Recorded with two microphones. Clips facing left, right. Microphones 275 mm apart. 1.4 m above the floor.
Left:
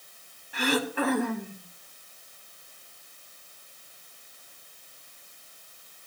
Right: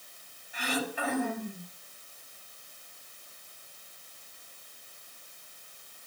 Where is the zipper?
No zipper in this recording.